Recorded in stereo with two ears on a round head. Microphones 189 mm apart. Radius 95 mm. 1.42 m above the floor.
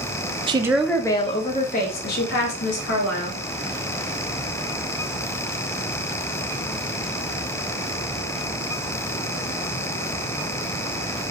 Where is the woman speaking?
25° right (ahead or behind), 0.5 m; by 3.4 s 60° left (ahead or behind), 1.7 m.